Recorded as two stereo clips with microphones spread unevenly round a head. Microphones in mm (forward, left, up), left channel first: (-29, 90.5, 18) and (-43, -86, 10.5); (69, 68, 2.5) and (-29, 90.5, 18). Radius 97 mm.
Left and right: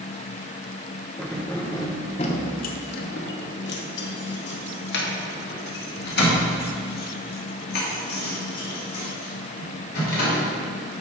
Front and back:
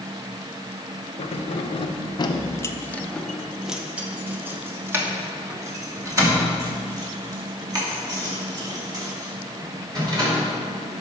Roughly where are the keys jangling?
Ahead.